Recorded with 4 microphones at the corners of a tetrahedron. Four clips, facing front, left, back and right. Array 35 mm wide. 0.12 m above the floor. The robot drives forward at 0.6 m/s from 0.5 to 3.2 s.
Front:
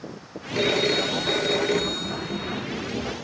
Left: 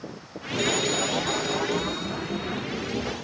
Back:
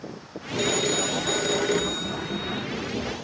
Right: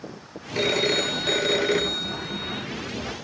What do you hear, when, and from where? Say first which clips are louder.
0.6 s a phone ringing: right 3 dB, front 3 dB; 45° right; by 2.6 s 120° right